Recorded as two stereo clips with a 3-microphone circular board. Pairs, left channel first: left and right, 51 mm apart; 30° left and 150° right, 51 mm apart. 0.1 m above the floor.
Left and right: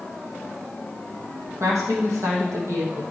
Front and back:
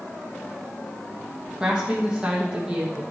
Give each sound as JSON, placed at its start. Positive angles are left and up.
{"t": 1.6, "sound": "a woman speaking", "azimuth_deg": -75, "distance_m": 3.5}